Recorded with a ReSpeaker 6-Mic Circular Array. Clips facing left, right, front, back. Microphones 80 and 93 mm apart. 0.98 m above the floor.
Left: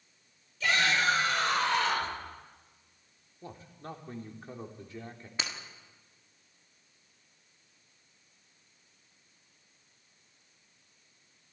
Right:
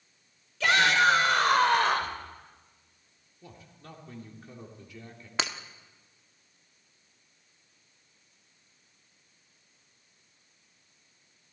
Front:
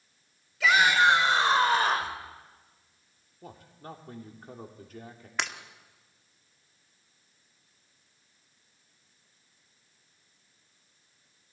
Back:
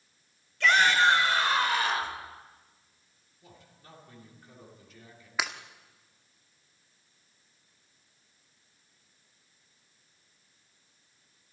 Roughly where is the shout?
Right.